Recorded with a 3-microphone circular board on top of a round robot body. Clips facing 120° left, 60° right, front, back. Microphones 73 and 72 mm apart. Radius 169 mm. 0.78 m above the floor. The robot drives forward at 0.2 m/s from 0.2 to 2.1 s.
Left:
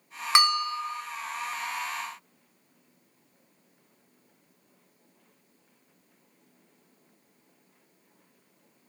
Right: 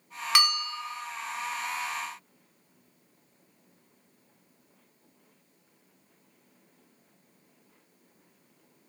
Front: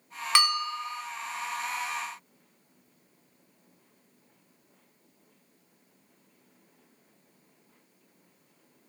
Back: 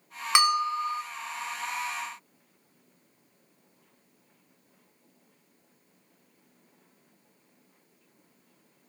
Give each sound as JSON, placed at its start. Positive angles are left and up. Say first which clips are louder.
{"t": 0.3, "sound": "a bell", "louder": "left 5 dB, back 3 dB", "azimuth_deg": 130, "distance_m": 0.8}